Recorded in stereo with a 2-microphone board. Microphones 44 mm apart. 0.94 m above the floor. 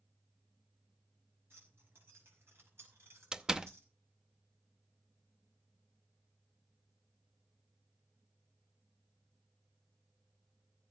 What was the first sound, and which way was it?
Keys jangling, 55° right (ahead or behind).